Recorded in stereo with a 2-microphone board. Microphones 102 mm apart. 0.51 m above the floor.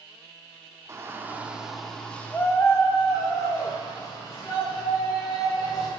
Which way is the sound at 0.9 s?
30° right (ahead or behind).